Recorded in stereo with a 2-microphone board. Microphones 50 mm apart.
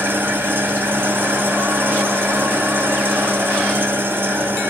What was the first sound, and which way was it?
An engine running, 45° right (ahead or behind).